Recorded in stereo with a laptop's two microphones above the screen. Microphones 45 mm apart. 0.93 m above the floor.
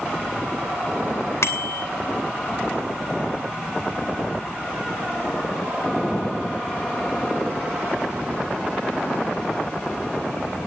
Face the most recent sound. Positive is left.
turn(degrees=80)